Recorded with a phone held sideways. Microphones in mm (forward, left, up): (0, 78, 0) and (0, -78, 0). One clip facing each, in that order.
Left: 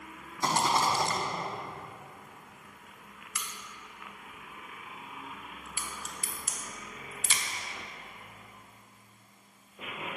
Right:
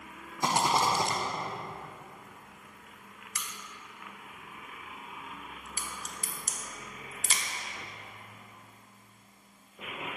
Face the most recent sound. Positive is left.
turn(degrees=-45)  # may be behind; listen again after turning